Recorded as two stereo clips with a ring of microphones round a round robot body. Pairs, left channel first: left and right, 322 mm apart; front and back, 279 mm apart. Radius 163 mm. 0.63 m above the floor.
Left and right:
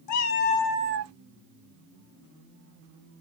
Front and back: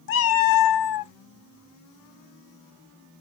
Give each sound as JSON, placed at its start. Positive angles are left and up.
{"t": 0.1, "sound": "a cat meowing", "azimuth_deg": 50, "distance_m": 0.8}